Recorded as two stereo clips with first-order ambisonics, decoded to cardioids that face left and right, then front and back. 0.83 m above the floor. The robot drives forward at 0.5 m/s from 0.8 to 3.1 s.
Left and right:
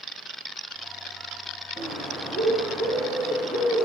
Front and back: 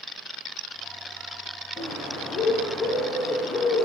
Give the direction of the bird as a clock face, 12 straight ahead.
2 o'clock.